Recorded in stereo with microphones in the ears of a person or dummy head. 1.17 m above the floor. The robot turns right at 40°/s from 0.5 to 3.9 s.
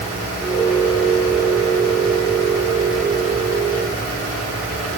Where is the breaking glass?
I don't hear breaking glass.